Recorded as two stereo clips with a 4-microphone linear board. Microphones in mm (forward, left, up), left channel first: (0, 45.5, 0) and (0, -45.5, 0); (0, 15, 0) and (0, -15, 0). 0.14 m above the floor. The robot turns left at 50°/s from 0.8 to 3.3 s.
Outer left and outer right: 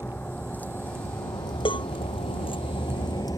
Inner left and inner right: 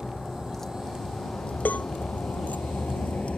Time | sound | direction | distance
0.0 | a vehicle | 15° left (ahead or behind) | ?
1.6 | a cowbell | 65° left (ahead or behind) | ?